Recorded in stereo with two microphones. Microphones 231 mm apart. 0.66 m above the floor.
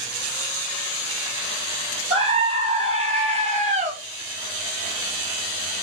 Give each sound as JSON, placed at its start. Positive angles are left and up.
{"t": 2.1, "sound": "a scream", "side_deg": -25, "distance_m": 4.0}